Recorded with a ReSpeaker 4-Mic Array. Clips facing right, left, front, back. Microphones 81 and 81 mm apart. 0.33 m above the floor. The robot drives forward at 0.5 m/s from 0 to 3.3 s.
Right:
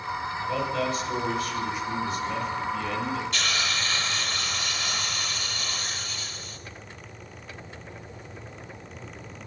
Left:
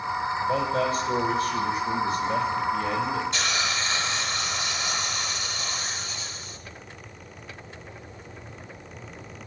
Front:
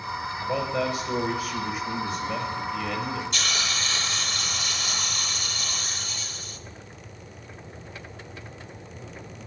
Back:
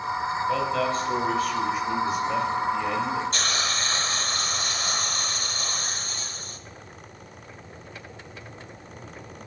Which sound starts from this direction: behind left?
A hiss, at 3.3 s.